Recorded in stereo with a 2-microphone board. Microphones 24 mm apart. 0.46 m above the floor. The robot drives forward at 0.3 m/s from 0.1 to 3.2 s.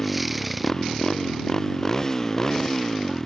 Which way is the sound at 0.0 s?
25° left (ahead or behind).